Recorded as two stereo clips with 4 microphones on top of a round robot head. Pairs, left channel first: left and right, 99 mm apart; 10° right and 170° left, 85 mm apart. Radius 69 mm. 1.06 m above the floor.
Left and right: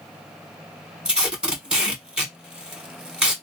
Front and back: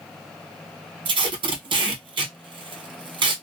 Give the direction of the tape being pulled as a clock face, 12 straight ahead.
6 o'clock.